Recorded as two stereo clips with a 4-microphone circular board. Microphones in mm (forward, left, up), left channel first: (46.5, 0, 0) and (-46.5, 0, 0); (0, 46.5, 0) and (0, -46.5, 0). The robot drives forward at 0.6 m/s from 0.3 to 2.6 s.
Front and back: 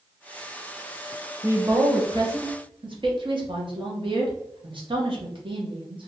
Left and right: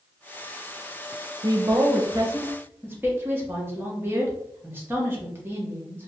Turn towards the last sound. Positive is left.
turn(degrees=-155)